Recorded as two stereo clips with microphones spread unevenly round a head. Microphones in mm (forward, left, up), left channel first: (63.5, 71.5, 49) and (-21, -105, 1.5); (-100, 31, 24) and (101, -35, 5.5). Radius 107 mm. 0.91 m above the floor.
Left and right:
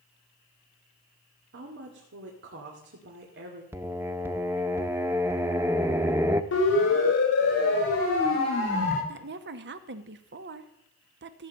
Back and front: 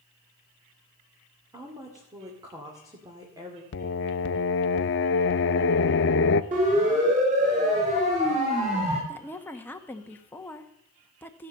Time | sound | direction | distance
1.5 | a woman speaking | 90° right | 2 m
3.7 | singing | 155° left | 0.5 m
6.5 | a siren | 35° left | 5 m
9.1 | a woman speaking | 115° right | 1.2 m